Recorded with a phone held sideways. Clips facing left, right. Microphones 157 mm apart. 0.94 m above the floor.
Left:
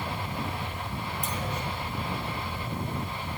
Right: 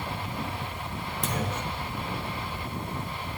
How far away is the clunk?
About 3 m.